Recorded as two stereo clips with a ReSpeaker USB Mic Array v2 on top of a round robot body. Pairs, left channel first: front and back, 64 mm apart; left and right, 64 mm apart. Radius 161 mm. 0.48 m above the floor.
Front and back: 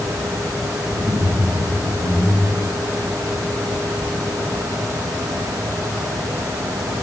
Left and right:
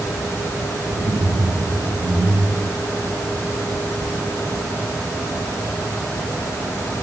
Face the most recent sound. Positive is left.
turn(degrees=-145)